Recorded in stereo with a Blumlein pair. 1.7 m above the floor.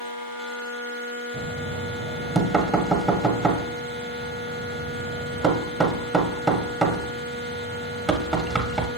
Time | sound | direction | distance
1.3 | knocking | 15° right | 1.2 m